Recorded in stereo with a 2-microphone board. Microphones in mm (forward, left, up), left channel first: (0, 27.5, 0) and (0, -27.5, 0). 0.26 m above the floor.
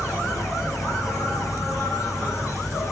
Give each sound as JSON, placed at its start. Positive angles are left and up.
{"t": 0.0, "sound": "an insect", "side_deg": 70, "distance_m": 4.5}